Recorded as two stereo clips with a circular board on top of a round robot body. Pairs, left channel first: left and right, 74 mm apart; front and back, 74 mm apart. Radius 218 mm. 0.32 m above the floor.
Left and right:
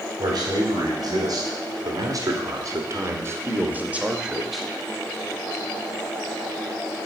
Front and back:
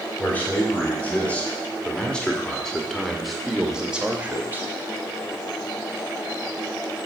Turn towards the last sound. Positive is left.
turn(degrees=170)